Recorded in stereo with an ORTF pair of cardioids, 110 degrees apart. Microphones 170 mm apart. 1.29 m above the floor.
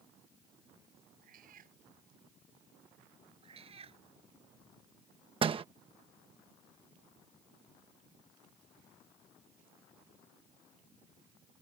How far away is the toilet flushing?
I don't hear a toilet flushing.